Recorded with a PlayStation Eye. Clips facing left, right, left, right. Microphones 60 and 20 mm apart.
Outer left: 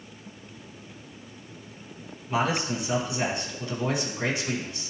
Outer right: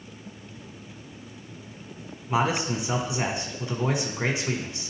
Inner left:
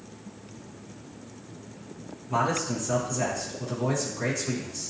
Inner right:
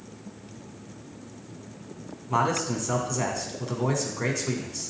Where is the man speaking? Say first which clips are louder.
Outer right 1 dB, inner right 1 dB; 25° right (ahead or behind), 1.2 m.